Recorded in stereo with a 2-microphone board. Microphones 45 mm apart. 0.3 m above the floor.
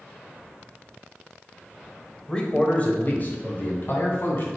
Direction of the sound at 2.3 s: 20° left (ahead or behind).